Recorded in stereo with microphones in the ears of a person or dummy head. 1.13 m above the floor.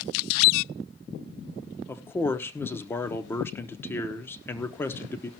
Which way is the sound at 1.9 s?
15° left (ahead or behind).